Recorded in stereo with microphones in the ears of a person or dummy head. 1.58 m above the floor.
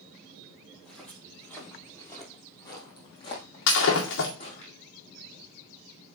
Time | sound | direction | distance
0.7 | footsteps | centre (ahead or behind) | 3 m
3.7 | breaking glass | 65° left (ahead or behind) | 2 m